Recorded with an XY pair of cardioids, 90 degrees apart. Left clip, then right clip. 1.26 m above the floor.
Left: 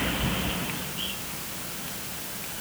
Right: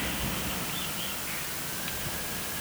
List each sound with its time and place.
Only background noise.